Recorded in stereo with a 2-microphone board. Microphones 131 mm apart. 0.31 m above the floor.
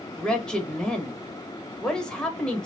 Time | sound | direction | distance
0.2 | a man speaking | 5° left (ahead or behind) | 0.9 m